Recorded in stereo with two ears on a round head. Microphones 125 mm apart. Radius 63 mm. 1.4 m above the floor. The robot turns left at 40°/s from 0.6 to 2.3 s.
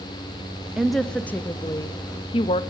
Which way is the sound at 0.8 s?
5° right (ahead or behind).